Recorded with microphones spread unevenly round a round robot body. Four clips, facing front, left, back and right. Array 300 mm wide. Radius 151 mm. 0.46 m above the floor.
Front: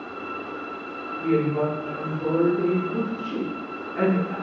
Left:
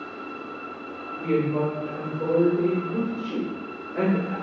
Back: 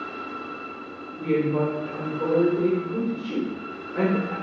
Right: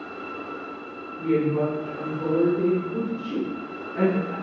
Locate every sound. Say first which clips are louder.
1.2 s a woman speaking: right 1 dB, even; 160° left, 1.7 m